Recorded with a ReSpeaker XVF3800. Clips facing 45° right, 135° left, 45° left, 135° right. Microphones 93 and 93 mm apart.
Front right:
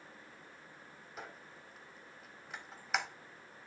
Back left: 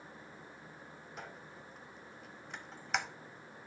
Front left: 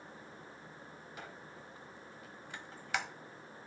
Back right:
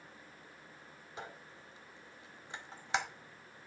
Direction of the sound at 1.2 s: 130° right.